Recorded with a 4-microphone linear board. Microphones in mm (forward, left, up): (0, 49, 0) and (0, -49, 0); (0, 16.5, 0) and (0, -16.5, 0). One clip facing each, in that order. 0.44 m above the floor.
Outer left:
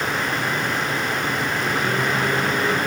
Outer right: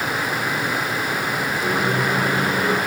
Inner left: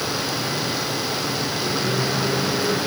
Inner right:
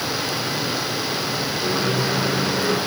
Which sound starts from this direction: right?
A microwave, at 1.6 s.